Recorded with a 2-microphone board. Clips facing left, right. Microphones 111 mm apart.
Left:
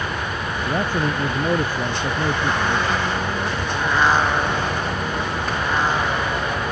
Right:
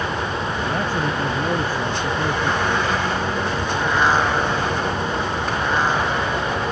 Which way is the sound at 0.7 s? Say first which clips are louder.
Left 3 dB; 15° left (ahead or behind).